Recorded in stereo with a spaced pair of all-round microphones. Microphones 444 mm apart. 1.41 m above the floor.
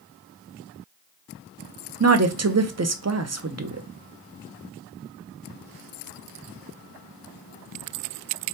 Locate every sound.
2.0 s a woman speaking: 40° right (ahead or behind), 0.5 m